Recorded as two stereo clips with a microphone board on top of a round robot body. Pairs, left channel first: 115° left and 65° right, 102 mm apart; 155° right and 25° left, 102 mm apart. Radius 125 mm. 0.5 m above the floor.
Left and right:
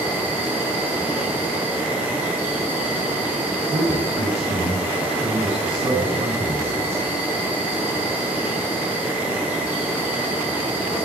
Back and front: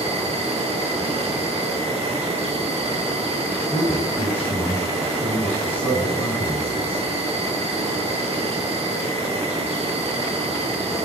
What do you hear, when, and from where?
0.0 s an insect: 10° left, 6 m
3.7 s a man speaking: 85° right, 6 m